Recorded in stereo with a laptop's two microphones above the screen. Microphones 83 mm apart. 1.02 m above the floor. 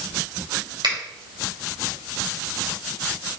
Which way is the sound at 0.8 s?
80° right.